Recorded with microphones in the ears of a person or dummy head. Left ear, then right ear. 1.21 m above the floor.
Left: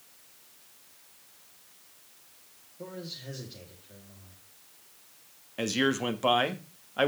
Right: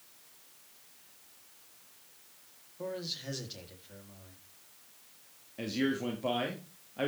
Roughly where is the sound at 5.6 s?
Left.